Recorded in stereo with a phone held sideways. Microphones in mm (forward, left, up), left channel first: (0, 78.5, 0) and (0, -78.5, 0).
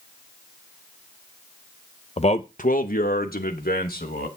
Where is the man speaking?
40° left (ahead or behind), 0.6 m; by 4.3 s 70° left (ahead or behind), 1.6 m.